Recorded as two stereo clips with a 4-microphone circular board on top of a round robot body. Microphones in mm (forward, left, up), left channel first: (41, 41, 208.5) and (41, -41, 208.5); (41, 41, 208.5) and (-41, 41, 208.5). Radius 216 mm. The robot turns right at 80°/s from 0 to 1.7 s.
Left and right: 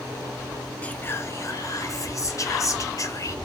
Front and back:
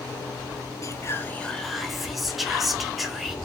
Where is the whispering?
20° left, 0.7 m; by 3.4 s 90° left, 0.7 m.